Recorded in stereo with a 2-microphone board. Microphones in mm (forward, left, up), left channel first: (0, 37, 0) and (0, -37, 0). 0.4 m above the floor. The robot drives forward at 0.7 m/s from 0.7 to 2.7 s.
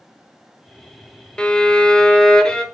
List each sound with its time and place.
1.4 s a violin: 15° left (ahead or behind), 0.7 m; by 2.6 s 10° left (ahead or behind), 0.9 m